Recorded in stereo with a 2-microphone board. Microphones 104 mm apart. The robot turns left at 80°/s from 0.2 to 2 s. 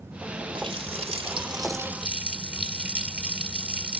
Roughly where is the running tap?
Ahead right.